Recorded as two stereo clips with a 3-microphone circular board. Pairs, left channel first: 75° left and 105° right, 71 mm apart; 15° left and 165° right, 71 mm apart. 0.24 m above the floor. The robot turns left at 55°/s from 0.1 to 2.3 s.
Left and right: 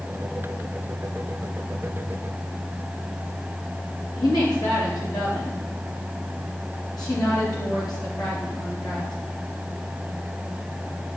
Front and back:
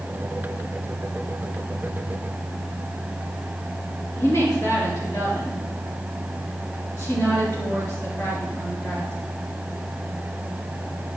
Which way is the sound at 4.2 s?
65° left.